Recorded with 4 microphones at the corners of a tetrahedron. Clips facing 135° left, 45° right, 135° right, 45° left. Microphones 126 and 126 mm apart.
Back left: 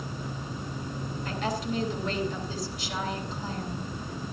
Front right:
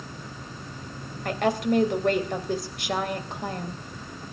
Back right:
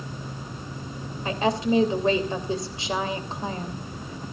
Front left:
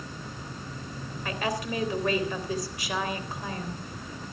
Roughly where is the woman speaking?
Right.